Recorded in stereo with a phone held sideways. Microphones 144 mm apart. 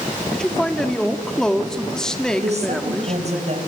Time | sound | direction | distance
0.3 | a man speaking | 5° left (ahead or behind) | 2.5 m
2.4 | a woman speaking | 50° right (ahead or behind) | 5.5 m